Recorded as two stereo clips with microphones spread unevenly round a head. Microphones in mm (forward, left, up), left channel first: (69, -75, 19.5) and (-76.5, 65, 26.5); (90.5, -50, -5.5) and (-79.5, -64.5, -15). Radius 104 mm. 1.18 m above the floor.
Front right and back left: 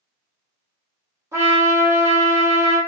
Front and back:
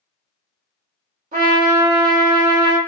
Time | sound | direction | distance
1.3 | a trumpet | 150° right | 0.9 m